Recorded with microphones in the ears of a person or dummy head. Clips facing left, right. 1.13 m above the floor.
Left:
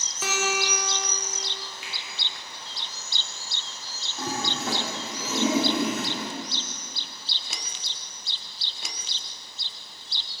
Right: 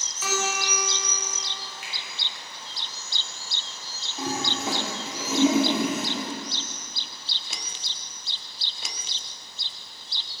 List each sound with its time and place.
0.2 s a guitar: 35° left (ahead or behind), 0.9 m
1.8 s a finger snap: 45° right (ahead or behind), 1.7 m
4.2 s a toilet flushing: 5° right (ahead or behind), 0.8 m